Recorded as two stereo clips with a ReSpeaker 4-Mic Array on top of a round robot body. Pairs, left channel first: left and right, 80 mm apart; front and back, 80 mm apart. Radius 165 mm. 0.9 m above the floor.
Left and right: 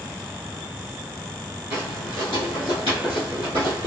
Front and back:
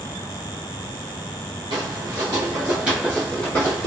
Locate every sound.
1.7 s footsteps: 160° right, 1.2 m; by 3.9 s 60° right, 1.2 m